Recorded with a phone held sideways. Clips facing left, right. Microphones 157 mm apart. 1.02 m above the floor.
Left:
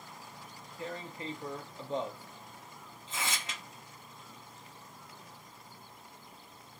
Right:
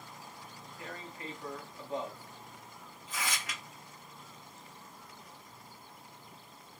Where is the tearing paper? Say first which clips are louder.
Left 5 dB; 25° left (ahead or behind), 0.6 m.